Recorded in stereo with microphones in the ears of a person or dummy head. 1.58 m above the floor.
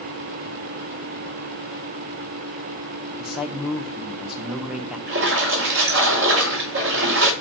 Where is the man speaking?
5° left (ahead or behind), 1.1 m.